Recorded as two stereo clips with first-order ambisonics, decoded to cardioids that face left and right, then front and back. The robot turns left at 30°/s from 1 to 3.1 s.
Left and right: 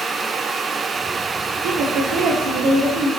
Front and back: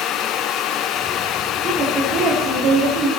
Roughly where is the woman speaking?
Right.